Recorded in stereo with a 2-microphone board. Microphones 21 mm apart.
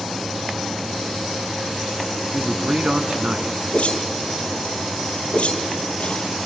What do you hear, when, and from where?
2.3 s a man speaking: 50° right (ahead or behind), 2 m
3.7 s a whoosh: 65° left (ahead or behind), 2.5 m